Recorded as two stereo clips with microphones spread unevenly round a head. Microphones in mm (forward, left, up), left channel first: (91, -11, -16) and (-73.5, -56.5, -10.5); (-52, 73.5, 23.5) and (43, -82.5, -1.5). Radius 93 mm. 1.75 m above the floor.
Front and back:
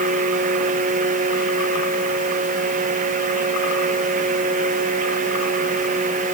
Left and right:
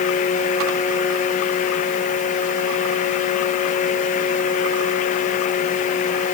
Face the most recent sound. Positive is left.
No sound to turn to.